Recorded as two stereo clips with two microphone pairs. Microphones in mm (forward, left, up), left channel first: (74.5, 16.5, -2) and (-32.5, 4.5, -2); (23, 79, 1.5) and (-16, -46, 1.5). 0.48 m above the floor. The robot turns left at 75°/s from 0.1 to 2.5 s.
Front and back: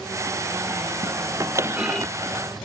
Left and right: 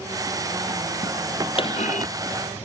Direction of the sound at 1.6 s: 120° left.